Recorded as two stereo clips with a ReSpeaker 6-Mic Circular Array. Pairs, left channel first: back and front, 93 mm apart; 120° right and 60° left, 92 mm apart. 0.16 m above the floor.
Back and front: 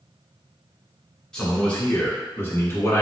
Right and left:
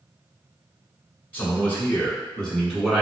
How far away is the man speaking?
About 1.2 m.